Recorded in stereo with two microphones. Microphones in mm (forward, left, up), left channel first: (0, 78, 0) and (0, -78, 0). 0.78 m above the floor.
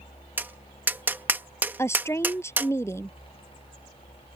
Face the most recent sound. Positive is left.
turn(degrees=15)  # may be behind; listen again after turning